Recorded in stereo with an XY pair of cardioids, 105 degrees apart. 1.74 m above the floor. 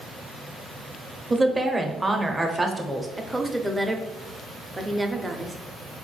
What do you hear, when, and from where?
1.3 s a woman speaking: 15° right, 0.7 m
3.2 s a woman speaking: 10° right, 0.6 m